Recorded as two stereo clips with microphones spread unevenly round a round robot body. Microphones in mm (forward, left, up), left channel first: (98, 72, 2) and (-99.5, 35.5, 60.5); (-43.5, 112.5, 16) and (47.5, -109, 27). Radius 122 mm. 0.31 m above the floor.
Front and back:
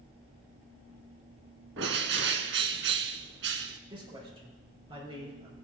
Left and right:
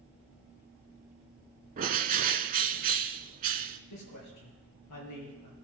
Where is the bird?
125° right, 0.6 m.